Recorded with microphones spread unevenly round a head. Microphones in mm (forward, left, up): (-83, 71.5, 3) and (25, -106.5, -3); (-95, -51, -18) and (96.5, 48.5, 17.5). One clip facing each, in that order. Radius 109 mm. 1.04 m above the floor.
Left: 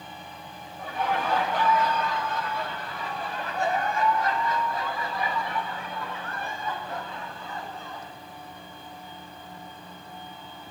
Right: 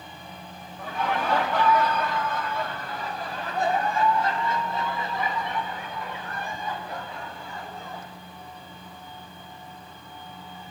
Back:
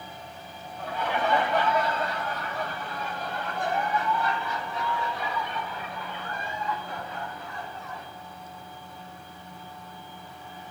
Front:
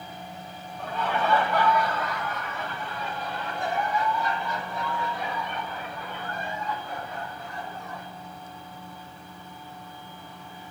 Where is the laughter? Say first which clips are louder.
Even, even; 75° right, 3 m; by 8.1 s 140° right, 6 m.